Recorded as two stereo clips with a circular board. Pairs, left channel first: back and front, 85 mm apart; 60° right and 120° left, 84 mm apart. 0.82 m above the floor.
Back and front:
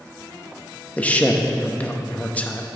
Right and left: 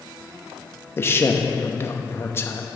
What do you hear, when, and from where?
1.0 s a man speaking: 110° right, 0.8 m